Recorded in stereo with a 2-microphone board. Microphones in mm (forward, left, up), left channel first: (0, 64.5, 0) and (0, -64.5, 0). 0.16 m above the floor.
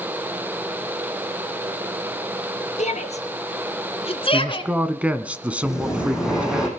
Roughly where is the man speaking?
Centre.